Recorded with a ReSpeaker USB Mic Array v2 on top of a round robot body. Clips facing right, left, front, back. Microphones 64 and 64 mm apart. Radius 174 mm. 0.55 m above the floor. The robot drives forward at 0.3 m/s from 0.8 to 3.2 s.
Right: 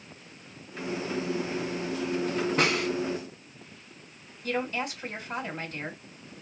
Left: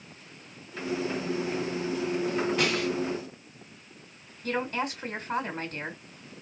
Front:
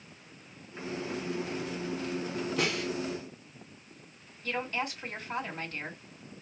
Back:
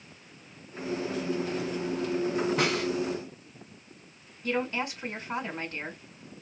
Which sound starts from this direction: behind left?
A woman speaking, at 4.4 s.